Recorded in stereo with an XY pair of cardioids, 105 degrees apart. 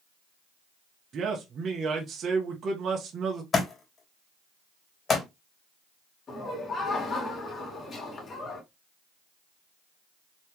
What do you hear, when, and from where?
1.1 s a man speaking: 55° right, 1.5 m
3.5 s a thud: 40° left, 3 m
6.3 s laughter: 45° left, 2.5 m